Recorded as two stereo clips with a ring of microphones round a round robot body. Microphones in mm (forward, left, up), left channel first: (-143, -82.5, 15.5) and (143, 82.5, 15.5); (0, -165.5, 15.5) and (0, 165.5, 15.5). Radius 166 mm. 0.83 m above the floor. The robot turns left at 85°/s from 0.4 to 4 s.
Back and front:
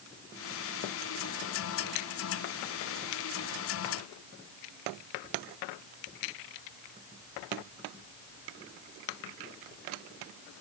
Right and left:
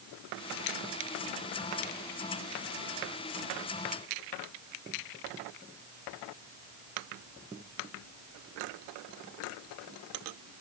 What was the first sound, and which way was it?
Only background noise.